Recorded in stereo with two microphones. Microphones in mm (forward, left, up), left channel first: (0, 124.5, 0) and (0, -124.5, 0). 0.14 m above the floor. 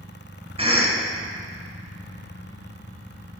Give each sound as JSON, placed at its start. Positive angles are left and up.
{"t": 0.6, "sound": "a cough", "side_deg": -25, "distance_m": 1.1}